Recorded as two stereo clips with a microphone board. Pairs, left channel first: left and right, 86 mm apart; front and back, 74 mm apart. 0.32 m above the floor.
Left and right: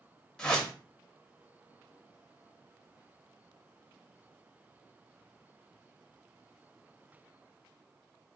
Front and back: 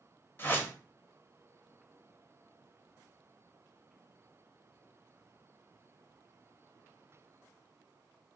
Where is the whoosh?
15° left, 0.9 m.